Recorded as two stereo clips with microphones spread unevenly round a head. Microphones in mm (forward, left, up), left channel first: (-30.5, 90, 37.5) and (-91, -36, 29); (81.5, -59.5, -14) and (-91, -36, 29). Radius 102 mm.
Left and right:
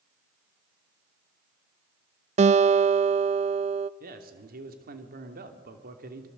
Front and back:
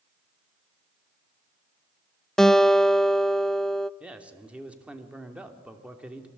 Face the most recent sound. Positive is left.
turn(degrees=-100)